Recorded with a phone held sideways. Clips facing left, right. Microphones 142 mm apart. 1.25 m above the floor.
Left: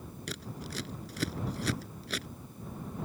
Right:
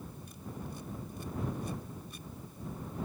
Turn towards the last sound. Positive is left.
turn(degrees=90)